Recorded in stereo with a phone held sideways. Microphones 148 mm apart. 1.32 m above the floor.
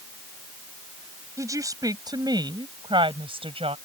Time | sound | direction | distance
1.4 | a woman speaking | 20° right (ahead or behind) | ?